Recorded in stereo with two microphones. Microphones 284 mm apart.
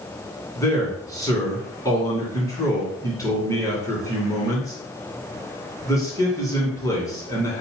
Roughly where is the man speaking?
Centre.